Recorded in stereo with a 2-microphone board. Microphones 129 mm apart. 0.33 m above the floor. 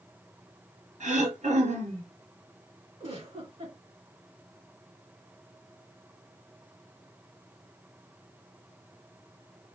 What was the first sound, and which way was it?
Throat clearing, 65° right (ahead or behind).